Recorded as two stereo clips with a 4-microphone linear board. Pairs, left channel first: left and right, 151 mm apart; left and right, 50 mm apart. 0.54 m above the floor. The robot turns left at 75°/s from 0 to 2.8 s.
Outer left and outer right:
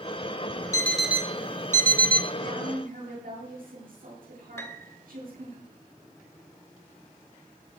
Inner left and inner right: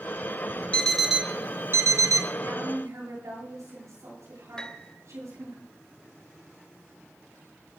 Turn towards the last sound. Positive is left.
turn(degrees=15)  # may be behind; listen again after turning